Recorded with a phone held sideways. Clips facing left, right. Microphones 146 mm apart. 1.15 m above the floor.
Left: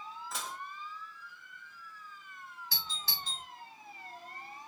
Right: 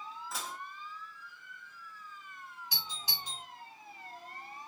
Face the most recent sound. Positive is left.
turn(degrees=-15)  # may be behind; listen again after turning